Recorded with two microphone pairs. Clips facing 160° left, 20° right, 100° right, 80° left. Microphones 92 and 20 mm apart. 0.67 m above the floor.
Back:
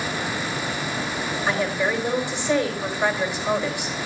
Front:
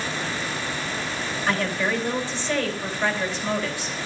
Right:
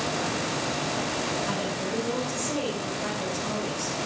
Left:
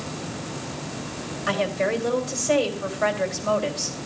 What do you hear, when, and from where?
1.5 s a woman speaking: 90° left, 3 m